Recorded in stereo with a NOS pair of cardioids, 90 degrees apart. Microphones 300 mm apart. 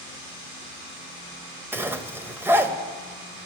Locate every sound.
1.7 s a zipper: 10° right, 0.7 m